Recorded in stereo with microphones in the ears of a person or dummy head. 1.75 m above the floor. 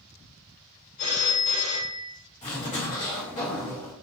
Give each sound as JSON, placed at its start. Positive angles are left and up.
{"t": 1.0, "sound": "a phone ringing", "side_deg": 35, "distance_m": 1.0}
{"t": 2.4, "sound": "a zipper", "side_deg": 30, "distance_m": 1.0}